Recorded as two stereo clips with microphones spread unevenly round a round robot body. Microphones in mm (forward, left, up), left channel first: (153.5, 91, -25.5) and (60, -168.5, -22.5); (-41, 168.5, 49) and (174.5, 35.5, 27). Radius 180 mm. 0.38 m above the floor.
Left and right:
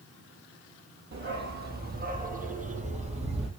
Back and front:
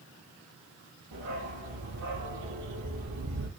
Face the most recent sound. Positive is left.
turn(degrees=-40)